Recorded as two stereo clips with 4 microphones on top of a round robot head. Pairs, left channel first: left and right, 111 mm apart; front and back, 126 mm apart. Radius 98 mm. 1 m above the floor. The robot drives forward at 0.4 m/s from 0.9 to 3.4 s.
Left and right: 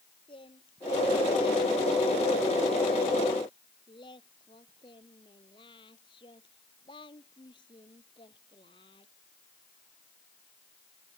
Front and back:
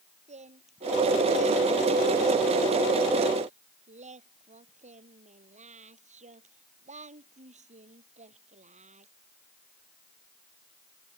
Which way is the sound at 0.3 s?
150° left.